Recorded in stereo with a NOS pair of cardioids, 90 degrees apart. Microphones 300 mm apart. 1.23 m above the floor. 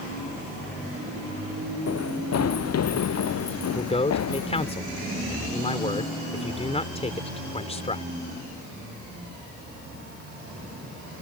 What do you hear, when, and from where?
1.9 s running footsteps: 55° left; by 4.7 s 60° left
3.7 s a man speaking: 20° left